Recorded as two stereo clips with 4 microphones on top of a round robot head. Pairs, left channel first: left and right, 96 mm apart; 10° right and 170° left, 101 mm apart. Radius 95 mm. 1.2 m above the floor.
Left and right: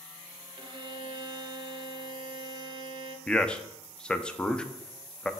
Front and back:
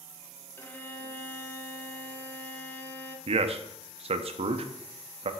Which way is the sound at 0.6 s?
70° right.